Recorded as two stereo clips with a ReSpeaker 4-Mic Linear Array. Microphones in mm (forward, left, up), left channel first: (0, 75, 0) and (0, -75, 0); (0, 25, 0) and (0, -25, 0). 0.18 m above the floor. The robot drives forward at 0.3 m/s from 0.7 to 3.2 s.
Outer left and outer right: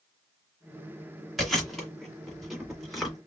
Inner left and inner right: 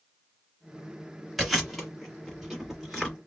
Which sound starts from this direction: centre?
Chewing, at 1.4 s.